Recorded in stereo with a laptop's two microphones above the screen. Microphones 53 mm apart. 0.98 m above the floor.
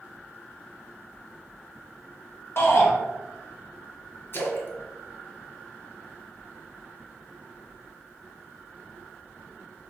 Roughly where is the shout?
Left.